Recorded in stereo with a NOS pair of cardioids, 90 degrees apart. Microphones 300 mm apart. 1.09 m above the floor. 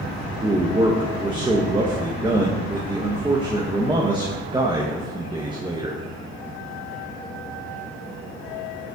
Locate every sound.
0.4 s a man speaking: 15° right, 1.0 m